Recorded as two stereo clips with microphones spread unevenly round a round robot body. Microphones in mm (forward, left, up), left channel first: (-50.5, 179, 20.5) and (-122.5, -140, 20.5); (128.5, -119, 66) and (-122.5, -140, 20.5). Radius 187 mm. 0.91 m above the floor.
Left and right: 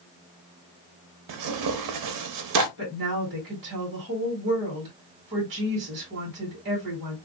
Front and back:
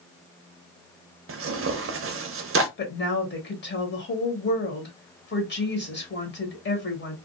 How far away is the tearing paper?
About 0.6 m.